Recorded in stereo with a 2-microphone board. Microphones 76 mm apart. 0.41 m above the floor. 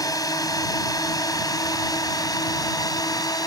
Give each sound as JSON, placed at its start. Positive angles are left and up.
{"t": 0.0, "sound": "a drone", "side_deg": 55}